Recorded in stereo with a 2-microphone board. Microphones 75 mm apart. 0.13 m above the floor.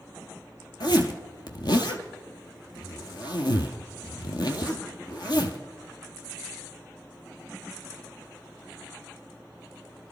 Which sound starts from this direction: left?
A zipper, at 0.8 s.